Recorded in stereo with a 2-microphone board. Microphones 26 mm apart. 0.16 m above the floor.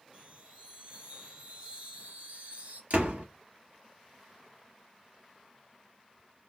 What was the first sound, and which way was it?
A chime, 55° right (ahead or behind).